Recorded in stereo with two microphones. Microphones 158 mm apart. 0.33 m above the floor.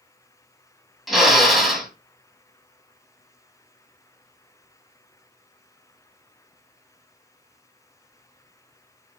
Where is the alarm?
No alarm in this recording.